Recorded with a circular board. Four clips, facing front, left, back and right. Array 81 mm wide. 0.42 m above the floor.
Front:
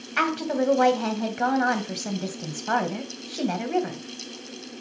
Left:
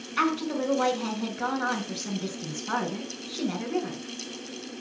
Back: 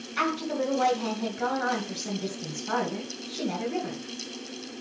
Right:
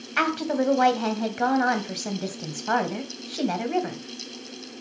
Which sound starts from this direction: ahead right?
A woman speaking, at 0.2 s.